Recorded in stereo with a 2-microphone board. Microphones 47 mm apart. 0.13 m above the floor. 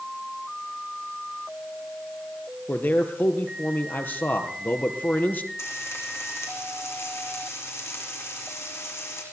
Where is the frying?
75° left (ahead or behind), 8.5 m.